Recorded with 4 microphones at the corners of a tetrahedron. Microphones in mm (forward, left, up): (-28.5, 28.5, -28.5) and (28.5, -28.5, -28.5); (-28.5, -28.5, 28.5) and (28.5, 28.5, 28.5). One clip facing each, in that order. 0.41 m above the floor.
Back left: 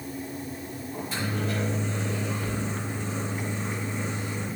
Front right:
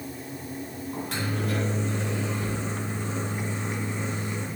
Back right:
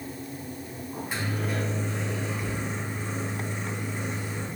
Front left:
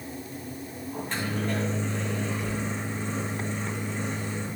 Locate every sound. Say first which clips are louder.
0.9 s a microwave: even, front left 1 dB; 55° right, 2.5 m